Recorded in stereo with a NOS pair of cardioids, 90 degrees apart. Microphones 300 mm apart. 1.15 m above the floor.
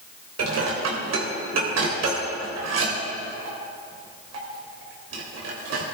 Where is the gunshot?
No gunshot in this recording.